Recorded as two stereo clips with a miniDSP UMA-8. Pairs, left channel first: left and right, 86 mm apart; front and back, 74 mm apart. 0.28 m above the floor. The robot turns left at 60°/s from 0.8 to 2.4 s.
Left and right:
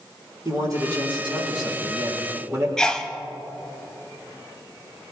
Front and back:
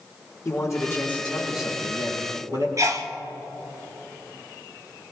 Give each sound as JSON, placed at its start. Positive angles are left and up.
{"t": 0.5, "sound": "a man speaking", "azimuth_deg": -50, "distance_m": 6.0}
{"t": 2.8, "sound": "a sneeze", "azimuth_deg": 170, "distance_m": 1.7}